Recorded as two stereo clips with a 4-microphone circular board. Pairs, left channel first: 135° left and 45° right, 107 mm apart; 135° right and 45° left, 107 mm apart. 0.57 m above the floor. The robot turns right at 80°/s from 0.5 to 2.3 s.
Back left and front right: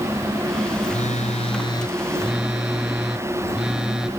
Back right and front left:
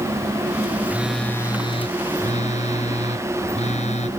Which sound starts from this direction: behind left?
A phone buzzing, at 0.9 s.